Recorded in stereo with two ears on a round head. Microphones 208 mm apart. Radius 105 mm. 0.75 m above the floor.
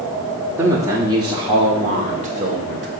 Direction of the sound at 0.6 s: 10° right (ahead or behind).